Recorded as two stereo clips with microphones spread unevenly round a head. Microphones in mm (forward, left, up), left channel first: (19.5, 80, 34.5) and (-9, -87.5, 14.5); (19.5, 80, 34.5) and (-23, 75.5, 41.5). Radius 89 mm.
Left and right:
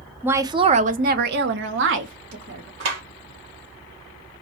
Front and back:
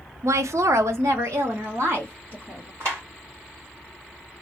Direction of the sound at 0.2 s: Straight behind.